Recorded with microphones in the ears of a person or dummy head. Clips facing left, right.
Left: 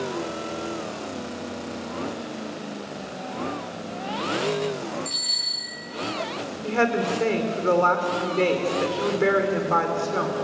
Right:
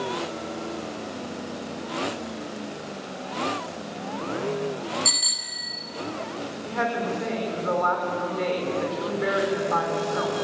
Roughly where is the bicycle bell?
Right.